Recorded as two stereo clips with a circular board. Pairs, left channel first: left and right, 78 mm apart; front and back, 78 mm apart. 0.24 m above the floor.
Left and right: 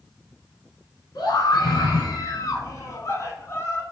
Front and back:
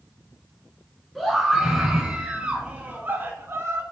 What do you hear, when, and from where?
1.1 s a scream: 90° left, 2.5 m; by 3.8 s 135° left, 2 m